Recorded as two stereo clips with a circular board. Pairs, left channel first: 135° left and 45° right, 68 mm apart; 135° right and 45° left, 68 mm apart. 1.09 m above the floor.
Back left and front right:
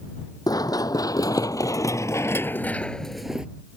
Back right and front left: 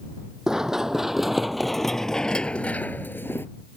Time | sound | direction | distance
0.5 | running footsteps | 125° left | ?